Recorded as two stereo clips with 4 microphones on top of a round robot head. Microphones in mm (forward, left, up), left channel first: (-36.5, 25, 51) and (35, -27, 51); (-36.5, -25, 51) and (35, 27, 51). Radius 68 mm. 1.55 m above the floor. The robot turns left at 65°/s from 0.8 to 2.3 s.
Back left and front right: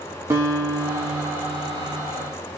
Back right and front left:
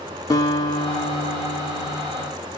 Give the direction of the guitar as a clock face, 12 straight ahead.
3 o'clock.